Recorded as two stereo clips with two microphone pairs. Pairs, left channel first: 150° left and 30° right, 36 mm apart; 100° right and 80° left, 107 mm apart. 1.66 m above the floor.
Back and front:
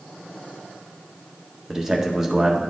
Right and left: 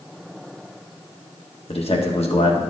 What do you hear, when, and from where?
1.7 s a man speaking: 110° right, 1.6 m